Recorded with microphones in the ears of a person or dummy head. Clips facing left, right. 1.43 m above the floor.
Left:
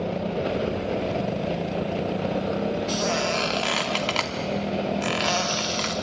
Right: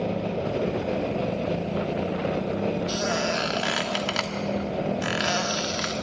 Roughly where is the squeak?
Centre.